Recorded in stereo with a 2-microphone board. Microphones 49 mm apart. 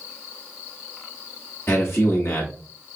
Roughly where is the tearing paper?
I don't hear tearing paper.